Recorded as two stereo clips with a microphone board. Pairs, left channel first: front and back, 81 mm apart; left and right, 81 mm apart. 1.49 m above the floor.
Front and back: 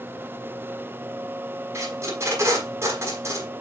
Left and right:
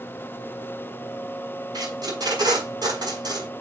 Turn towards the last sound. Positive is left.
turn(degrees=-125)